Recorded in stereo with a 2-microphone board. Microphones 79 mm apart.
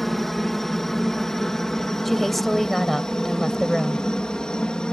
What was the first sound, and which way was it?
A helicopter, 5° left (ahead or behind).